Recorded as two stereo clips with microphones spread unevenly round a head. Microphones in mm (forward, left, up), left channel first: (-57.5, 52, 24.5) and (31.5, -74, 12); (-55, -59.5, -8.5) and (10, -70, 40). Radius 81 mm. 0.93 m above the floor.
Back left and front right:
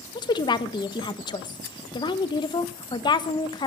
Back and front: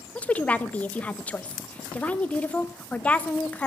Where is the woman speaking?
175° right, 0.9 m.